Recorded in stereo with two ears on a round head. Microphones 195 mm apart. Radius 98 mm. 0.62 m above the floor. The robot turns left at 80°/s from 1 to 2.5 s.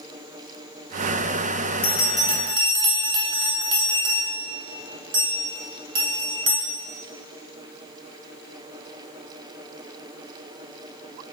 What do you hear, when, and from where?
1.8 s a bell: 30° left (ahead or behind), 0.6 m; by 6.6 s 25° right (ahead or behind), 0.6 m